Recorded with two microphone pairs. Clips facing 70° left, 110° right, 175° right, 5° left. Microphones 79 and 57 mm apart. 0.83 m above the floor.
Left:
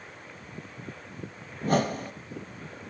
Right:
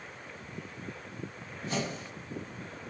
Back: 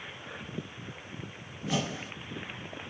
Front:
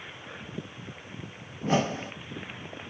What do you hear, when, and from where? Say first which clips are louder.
1.6 s a whoosh: left 9 dB, front 6 dB; 45° left, 0.8 m